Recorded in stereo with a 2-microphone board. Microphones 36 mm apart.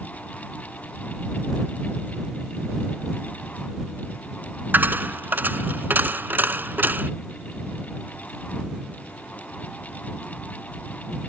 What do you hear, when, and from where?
4.7 s a dropped coin: 60° right (ahead or behind)